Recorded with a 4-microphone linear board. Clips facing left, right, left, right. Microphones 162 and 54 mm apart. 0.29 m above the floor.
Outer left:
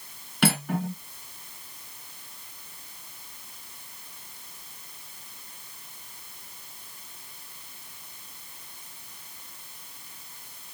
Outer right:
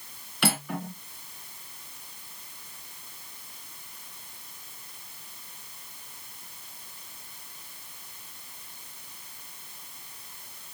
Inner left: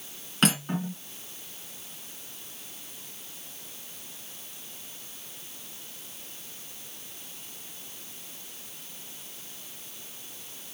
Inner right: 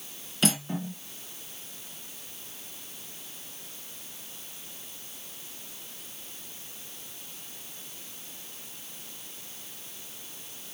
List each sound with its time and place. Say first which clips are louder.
0.4 s cutlery clinking: outer left 4 dB, inner left 2 dB; 55° left (ahead or behind), 1.9 m